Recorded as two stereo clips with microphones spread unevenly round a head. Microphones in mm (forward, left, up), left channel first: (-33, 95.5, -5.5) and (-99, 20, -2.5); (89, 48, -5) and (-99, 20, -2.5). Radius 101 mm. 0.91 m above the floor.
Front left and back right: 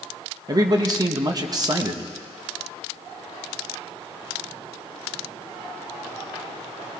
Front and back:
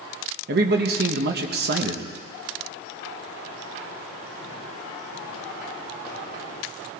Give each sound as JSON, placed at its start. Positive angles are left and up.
{"t": 0.5, "sound": "a man speaking", "azimuth_deg": -170, "distance_m": 1.1}